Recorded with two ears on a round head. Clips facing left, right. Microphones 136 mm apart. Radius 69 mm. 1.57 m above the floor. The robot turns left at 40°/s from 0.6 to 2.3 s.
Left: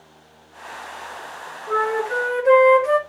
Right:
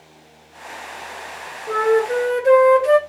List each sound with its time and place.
1.7 s a flute: 20° right (ahead or behind), 1.0 m; by 3.0 s 35° right (ahead or behind), 1.0 m